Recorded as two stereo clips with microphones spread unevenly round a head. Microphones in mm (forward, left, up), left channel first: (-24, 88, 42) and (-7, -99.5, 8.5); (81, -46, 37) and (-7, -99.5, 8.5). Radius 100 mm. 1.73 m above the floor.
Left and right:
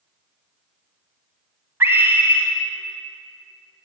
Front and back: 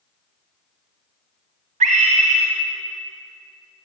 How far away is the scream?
About 1.3 m.